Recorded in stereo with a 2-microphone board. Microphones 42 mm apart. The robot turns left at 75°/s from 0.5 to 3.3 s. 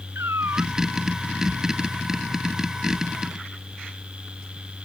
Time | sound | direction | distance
0.1 | a cat meowing | 80° right | ?